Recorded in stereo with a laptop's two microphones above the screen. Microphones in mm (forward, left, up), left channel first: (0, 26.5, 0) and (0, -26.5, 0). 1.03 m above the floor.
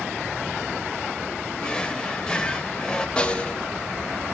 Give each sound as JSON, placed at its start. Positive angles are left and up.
{"t": 1.6, "sound": "a drawer", "side_deg": 15, "distance_m": 1.3}
{"t": 3.2, "sound": "a snare drum", "side_deg": 20, "distance_m": 0.8}